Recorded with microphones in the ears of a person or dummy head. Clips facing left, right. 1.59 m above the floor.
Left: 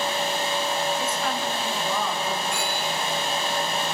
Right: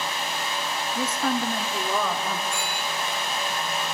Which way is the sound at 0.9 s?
30° right (ahead or behind).